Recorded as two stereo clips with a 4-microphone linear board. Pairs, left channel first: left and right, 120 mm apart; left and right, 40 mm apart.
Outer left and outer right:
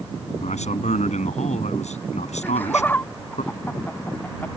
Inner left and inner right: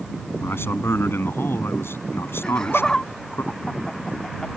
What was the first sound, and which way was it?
A man speaking, 75° left (ahead or behind).